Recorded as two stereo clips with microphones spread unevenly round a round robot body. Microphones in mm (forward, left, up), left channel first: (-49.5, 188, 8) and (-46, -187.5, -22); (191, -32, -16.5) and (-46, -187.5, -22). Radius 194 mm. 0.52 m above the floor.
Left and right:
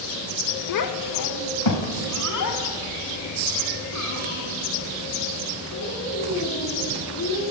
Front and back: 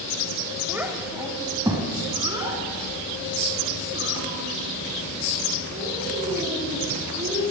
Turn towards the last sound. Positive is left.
turn(degrees=135)